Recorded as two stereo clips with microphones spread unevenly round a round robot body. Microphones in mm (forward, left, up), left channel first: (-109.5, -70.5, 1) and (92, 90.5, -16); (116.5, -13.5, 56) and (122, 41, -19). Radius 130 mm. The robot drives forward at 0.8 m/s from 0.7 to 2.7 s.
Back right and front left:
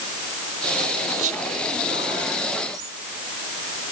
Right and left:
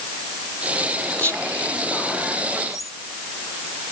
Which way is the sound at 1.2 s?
20° right.